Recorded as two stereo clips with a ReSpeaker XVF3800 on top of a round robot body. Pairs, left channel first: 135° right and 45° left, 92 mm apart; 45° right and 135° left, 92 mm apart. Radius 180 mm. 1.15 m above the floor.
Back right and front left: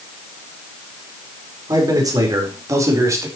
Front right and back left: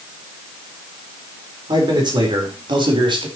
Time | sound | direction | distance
1.7 | a man speaking | 95° left | 5 m